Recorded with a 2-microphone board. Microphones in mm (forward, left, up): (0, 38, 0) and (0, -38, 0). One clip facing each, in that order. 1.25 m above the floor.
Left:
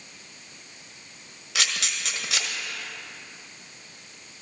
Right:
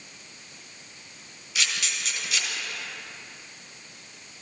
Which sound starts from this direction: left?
A camera shutter, at 1.6 s.